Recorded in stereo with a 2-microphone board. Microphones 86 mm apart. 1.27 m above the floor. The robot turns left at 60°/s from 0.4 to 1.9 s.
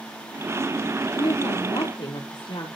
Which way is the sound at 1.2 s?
120° left.